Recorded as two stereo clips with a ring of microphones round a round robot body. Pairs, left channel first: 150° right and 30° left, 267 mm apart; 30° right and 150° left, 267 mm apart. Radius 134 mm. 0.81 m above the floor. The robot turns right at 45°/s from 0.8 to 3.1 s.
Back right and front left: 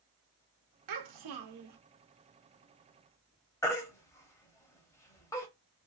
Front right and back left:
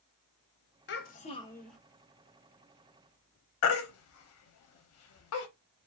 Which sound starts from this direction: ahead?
A child speaking, at 0.9 s.